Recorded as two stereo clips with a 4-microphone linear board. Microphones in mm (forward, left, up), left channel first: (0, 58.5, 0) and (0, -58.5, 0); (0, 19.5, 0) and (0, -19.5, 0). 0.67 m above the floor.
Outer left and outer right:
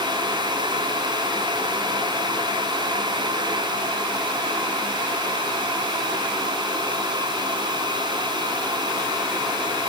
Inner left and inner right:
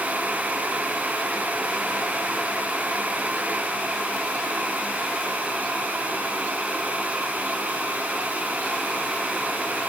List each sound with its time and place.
Only background noise.